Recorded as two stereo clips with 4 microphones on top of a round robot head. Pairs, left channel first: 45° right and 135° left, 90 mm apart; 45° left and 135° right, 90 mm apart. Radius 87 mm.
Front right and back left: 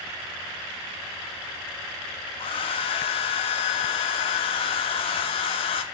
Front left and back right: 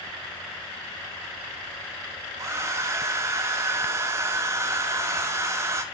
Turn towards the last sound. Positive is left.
turn(degrees=-75)